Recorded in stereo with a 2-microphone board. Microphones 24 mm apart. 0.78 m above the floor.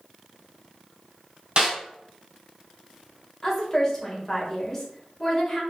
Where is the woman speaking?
20° left (ahead or behind), 1.2 m.